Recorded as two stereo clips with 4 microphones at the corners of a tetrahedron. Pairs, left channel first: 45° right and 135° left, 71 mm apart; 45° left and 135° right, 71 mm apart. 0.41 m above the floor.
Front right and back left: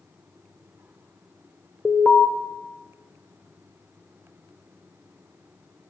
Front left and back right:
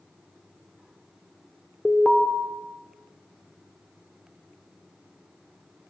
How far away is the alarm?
About 0.9 m.